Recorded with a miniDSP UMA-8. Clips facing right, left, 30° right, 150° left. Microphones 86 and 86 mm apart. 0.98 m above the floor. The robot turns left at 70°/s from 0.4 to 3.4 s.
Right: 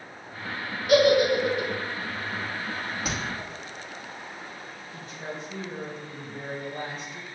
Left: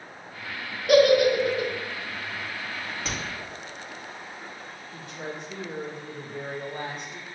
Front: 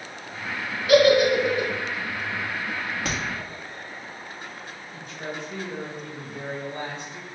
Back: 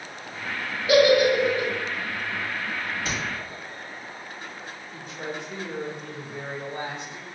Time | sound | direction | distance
0.9 | a giggle | 95° left | 1.5 m
3.0 | a crack | 10° right | 1.4 m
4.9 | a woman speaking | 80° left | 1.1 m